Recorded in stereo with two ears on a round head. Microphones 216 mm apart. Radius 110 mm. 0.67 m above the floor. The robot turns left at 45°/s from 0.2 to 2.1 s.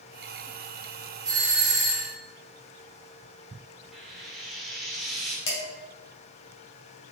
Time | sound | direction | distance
1.2 | a doorbell | 155° right | 2.5 m
3.9 | frying | centre (ahead or behind) | 1.5 m
5.5 | dishes clattering | 55° left (ahead or behind) | 2.5 m